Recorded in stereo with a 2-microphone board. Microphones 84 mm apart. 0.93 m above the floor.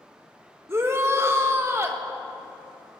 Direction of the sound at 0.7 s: 30° right (ahead or behind).